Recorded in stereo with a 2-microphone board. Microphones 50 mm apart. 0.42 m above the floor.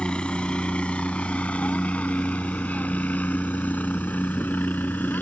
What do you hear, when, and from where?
0.0 s a helicopter: 20° left (ahead or behind); by 5.2 s 35° left (ahead or behind)